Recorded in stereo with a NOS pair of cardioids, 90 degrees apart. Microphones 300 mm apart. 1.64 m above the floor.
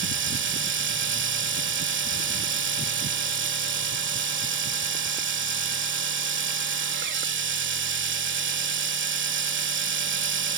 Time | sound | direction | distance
0.0 | a machine running | 40° right | ?